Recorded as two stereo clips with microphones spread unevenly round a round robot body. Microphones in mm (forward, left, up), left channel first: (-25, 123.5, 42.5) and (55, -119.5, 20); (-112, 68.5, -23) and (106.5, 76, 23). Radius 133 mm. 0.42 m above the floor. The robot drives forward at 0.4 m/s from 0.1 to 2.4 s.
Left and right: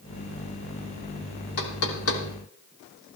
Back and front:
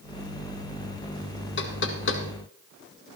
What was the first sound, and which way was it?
Knocking, 150° left.